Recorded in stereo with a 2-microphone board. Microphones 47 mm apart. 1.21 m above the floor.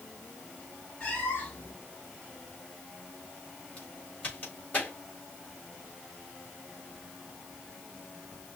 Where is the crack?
30° left (ahead or behind), 3.5 m.